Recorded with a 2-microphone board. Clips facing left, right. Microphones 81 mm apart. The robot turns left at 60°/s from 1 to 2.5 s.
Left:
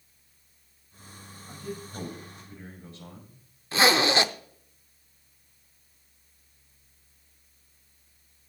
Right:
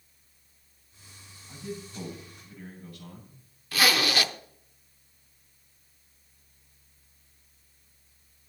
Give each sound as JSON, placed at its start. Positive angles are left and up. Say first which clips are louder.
{"t": 1.5, "sound": "a man speaking", "louder": "even", "azimuth_deg": 85, "distance_m": 6.5}
{"t": 3.7, "sound": "a zipper", "louder": "left 4 dB", "side_deg": 25, "distance_m": 0.6}